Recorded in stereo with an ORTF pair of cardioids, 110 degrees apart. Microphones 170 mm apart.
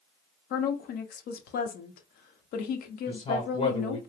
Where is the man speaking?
30° left, 1.0 m.